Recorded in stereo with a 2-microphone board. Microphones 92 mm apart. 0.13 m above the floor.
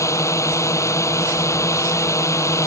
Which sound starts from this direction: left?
A drone, at 0.0 s.